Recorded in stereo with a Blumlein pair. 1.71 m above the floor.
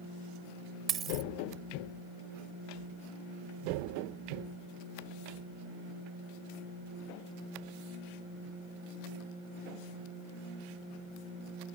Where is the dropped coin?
25° right.